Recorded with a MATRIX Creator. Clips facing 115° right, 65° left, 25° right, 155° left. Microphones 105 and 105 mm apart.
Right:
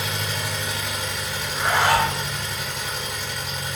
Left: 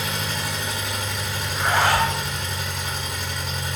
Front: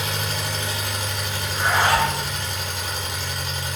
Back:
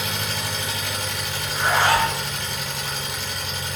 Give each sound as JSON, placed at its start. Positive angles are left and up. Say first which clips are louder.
{"t": 0.0, "sound": "an engine running", "louder": "even, front 1 dB", "azimuth_deg": -20, "distance_m": 1.2}
{"t": 1.4, "sound": "a zipper", "louder": "even, even", "azimuth_deg": -170, "distance_m": 1.8}